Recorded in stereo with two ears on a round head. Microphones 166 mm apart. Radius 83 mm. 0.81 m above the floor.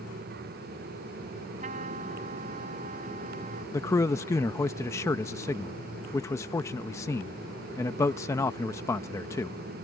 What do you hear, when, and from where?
1.6 s a trumpet: 40° right (ahead or behind)
3.7 s a man speaking: 15° left (ahead or behind)